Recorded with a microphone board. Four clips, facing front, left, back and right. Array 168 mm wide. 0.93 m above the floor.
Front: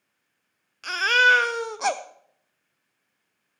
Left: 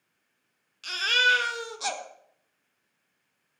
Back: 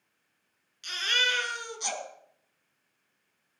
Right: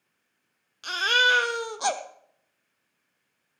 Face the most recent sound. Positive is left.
turn(degrees=-30)